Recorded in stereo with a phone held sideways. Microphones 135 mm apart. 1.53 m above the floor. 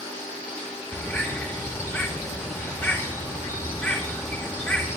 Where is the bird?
15° left (ahead or behind), 6 m.